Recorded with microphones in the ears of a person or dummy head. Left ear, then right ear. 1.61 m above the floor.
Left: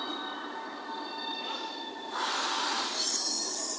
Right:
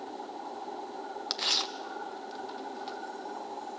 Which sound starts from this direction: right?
Tearing paper, at 1.3 s.